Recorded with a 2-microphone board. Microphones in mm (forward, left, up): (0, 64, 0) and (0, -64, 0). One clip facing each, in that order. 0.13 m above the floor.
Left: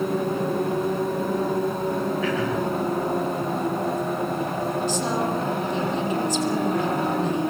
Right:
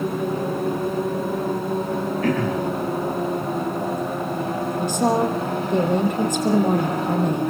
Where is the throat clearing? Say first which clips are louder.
Right 2 dB; 45° right (ahead or behind), 5.5 m.